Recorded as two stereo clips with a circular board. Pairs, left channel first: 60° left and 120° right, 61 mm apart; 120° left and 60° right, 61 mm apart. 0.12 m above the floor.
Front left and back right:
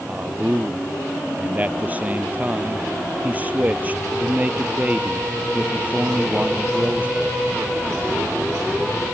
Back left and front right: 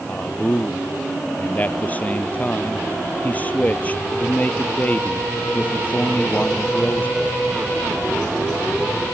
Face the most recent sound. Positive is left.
turn(degrees=180)